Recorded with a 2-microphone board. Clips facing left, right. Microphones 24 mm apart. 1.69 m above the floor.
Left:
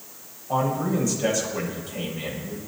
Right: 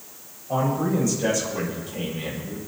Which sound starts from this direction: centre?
A man speaking, at 0.5 s.